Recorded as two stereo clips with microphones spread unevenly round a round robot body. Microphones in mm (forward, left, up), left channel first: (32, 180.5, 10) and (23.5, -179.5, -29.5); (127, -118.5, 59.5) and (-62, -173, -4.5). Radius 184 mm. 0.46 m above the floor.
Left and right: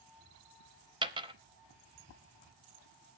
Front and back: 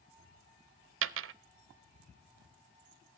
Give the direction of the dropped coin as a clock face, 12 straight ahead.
6 o'clock.